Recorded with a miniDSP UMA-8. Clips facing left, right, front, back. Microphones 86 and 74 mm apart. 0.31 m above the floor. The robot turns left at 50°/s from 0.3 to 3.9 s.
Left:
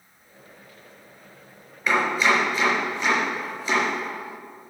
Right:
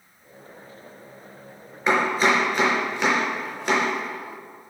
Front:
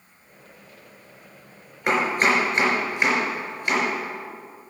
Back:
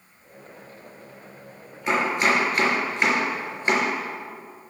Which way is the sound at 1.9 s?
30° right.